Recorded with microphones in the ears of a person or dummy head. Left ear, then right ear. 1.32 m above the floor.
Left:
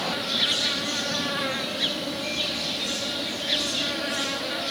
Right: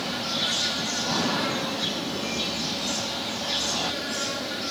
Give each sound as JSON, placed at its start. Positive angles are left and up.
{"t": 0.0, "sound": "an insect", "side_deg": 25, "distance_m": 0.8}